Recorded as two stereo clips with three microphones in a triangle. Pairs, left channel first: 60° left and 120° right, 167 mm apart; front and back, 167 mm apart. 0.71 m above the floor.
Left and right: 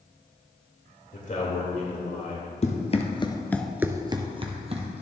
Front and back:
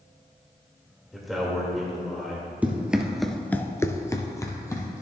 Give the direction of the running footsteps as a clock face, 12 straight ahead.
9 o'clock.